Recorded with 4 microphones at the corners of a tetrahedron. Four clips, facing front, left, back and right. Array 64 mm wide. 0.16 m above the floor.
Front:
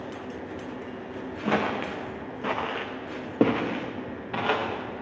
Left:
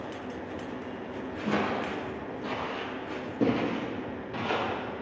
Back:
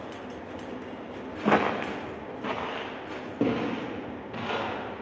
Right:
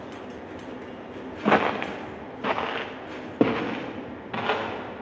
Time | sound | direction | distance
1.4 | footsteps | 115° right | 0.7 m